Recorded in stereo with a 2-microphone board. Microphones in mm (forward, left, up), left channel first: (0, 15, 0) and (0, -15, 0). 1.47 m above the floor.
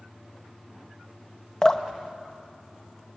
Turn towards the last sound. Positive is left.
turn(degrees=20)  # may be behind; listen again after turning